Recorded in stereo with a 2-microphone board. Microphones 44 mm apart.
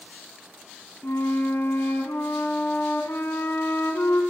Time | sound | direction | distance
1.0 | a flute | 60° left (ahead or behind) | 2.5 m